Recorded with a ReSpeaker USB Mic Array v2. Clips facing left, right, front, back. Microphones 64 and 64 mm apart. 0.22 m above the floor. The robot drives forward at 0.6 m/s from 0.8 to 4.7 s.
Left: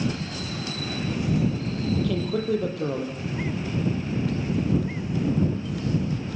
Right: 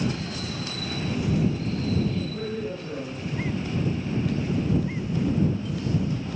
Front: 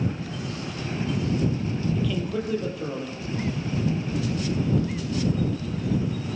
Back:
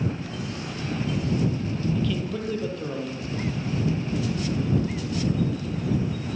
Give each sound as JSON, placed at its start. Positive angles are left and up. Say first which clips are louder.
{"t": 1.9, "sound": "a man speaking", "louder": "left 2 dB, even", "azimuth_deg": 80, "distance_m": 8.5}